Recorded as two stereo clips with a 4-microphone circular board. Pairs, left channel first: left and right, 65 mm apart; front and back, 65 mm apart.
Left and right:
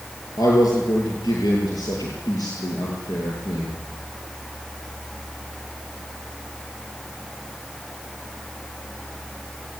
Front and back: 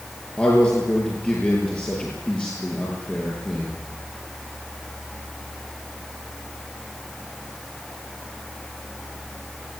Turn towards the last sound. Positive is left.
turn(degrees=75)